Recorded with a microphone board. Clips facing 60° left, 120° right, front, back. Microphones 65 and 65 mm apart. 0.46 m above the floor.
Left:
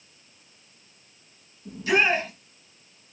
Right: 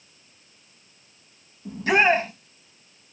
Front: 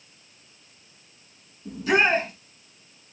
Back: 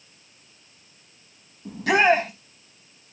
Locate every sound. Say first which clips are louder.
1.6 s a shout: right 3 dB, back 3 dB; 165° right, 4 m